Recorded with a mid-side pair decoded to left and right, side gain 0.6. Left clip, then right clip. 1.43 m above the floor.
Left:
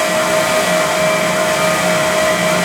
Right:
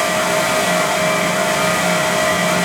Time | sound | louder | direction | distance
0.0 | a fan | left 2 dB | 5° left | 1.1 m